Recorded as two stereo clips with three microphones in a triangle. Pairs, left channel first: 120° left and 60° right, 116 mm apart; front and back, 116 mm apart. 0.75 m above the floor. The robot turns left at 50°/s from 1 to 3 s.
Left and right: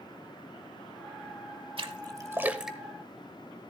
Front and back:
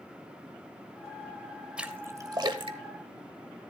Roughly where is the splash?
Right.